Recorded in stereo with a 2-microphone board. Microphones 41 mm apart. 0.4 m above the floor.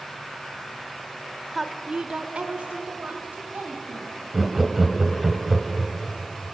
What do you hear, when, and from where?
1.5 s a woman speaking: centre (ahead or behind), 1.1 m; by 4.2 s 35° right (ahead or behind), 3 m
4.3 s laughter: 5° right (ahead or behind), 1.7 m